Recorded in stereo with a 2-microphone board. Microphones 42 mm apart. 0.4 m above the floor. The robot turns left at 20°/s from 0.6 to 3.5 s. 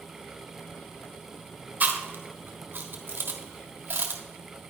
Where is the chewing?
40° right (ahead or behind), 1.5 m; by 4.2 s 55° right (ahead or behind), 1.5 m.